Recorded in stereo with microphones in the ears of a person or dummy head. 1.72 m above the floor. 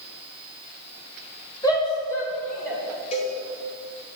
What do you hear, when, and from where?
1.6 s a shout: 20° left (ahead or behind), 1.5 m; by 2.8 s 10° left (ahead or behind), 2 m
3.1 s a cowbell: 35° left (ahead or behind), 2.5 m